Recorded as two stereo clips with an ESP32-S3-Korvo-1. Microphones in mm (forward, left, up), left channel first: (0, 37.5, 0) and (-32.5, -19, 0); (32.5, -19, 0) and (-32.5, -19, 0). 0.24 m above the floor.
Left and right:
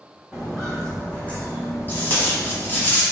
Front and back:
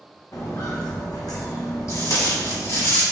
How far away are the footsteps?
About 1.1 m.